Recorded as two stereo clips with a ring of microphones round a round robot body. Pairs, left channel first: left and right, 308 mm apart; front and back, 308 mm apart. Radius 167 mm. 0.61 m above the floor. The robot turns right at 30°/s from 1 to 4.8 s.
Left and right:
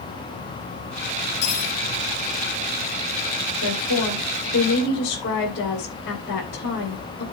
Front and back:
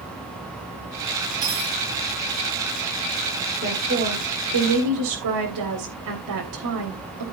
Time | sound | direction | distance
1.4 | cutlery clinking | 100° left | 7.5 m
3.6 | a woman speaking | 110° left | 3.5 m